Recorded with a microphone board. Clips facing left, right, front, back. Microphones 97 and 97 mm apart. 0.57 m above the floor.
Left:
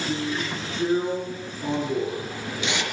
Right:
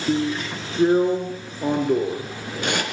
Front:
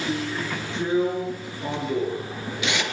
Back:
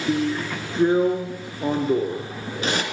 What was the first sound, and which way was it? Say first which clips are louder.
A drill: right 8 dB, back 8 dB; 130° right.